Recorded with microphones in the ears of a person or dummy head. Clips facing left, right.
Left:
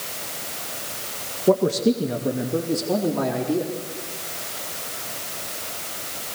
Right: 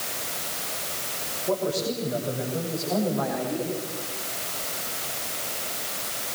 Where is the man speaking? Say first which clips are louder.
Left 8 dB; 60° left (ahead or behind), 1.6 m; by 3.8 s 85° left, 4 m.